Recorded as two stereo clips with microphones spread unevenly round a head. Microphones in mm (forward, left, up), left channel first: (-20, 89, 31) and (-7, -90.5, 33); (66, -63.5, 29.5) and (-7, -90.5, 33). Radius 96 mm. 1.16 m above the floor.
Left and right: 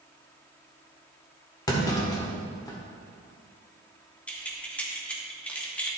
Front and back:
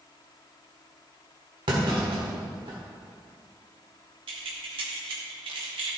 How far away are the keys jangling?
About 1.2 m.